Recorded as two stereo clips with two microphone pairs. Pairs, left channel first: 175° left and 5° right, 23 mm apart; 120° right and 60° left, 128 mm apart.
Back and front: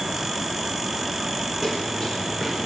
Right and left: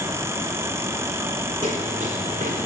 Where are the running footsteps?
55° left, 3.5 m; by 2.7 s 50° left, 5 m.